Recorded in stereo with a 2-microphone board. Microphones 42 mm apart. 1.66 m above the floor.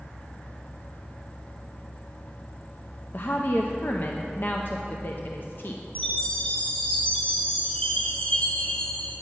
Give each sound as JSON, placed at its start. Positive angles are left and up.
{"t": 3.1, "sound": "a woman speaking", "side_deg": 50, "distance_m": 0.6}
{"t": 6.0, "sound": "a chime", "side_deg": 30, "distance_m": 3.5}